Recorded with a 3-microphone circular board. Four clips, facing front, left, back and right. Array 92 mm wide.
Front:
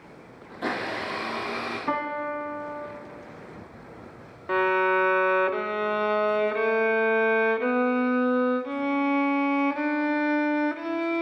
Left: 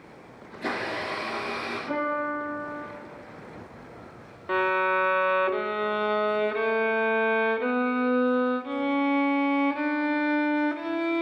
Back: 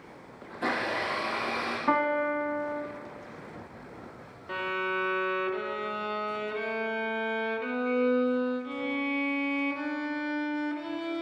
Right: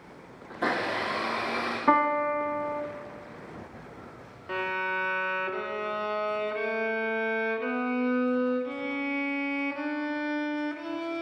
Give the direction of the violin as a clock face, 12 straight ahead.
11 o'clock.